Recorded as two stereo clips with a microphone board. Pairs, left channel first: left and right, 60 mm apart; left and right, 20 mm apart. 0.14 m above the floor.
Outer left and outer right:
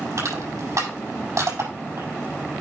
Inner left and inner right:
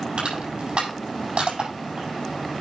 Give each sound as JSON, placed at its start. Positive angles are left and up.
{"t": 0.2, "sound": "crushing", "side_deg": -60, "distance_m": 6.5}